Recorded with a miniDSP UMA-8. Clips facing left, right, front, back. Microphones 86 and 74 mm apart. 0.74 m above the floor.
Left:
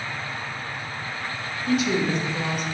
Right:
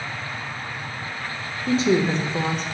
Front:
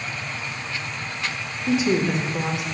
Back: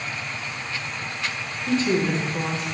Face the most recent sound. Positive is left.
turn(degrees=-65)